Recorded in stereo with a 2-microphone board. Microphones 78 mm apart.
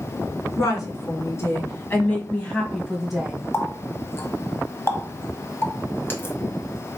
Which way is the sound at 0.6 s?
45° left (ahead or behind).